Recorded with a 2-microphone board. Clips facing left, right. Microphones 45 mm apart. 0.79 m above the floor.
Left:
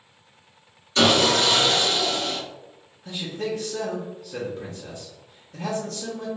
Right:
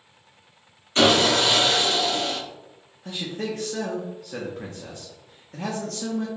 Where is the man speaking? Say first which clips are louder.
Left 1 dB; 60° right (ahead or behind), 0.7 m.